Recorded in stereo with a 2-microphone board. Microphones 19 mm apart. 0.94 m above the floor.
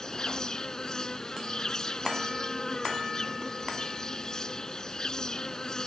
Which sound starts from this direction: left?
An insect, at 0.0 s.